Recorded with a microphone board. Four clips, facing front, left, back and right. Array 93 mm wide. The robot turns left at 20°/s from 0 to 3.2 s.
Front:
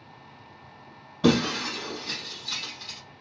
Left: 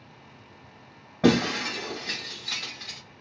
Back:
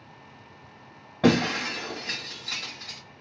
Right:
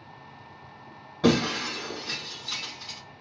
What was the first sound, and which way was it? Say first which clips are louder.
Breaking glass: left 1 dB, back 1 dB; 150° left.